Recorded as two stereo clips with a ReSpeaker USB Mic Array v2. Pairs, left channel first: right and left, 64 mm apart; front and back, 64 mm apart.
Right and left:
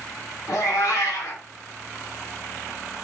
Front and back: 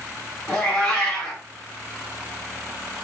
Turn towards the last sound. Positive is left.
turn(degrees=-75)